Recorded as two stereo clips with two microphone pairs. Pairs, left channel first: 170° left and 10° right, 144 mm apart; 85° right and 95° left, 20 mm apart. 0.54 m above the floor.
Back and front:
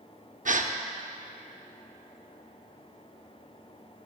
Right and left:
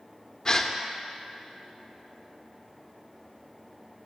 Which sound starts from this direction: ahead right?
A gasp, at 0.5 s.